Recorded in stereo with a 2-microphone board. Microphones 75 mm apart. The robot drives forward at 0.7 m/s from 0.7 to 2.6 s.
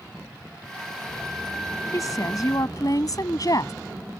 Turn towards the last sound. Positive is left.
turn(degrees=55)  # may be behind; listen again after turning